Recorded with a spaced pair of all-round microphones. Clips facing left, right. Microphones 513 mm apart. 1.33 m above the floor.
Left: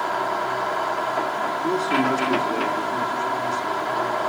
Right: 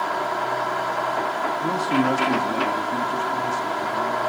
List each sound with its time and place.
1.6 s a man speaking: 35° right (ahead or behind), 1.0 m